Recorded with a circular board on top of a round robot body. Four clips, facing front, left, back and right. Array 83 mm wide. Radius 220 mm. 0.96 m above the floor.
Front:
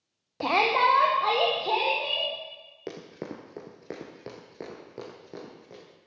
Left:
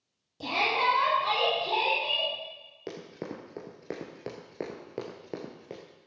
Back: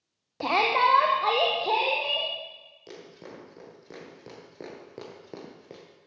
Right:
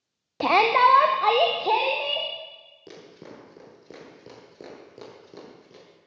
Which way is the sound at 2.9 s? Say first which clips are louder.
Left 5 dB, front 6 dB; 30° left.